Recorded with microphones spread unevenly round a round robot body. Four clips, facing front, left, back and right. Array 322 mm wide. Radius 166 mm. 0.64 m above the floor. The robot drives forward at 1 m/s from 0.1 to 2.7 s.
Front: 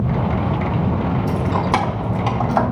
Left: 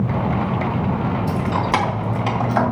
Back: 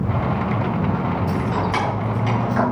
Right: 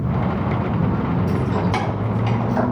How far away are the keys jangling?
About 3.5 m.